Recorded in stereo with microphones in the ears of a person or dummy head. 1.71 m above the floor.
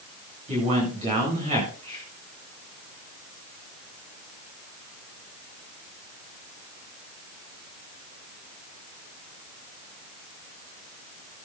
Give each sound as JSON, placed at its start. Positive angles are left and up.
{"t": 0.5, "sound": "a man speaking", "side_deg": -40, "distance_m": 8.5}